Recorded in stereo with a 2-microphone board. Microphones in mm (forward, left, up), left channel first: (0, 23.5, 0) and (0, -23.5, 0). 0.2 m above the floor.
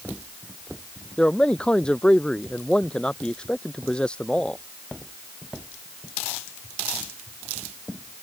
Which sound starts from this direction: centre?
A man speaking, at 1.2 s.